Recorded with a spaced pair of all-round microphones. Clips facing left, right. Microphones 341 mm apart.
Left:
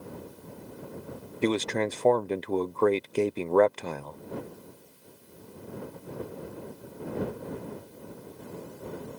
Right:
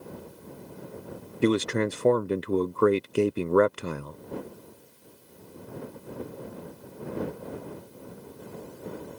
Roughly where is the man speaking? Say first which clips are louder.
Right 3 dB; centre.